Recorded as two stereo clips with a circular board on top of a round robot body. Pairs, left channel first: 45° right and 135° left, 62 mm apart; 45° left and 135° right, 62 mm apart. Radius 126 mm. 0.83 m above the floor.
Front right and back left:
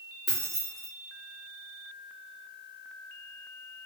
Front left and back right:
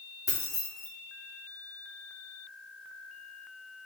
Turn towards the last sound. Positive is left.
turn(degrees=45)